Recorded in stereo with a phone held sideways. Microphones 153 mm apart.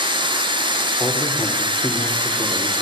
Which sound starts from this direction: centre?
A man speaking, at 1.0 s.